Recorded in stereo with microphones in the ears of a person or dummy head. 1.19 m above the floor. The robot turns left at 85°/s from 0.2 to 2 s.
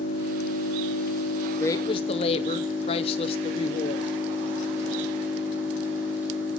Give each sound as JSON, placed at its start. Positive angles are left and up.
{"t": 0.0, "sound": "an engine running", "azimuth_deg": 140, "distance_m": 3.5}
{"t": 1.6, "sound": "a woman speaking", "azimuth_deg": 155, "distance_m": 0.5}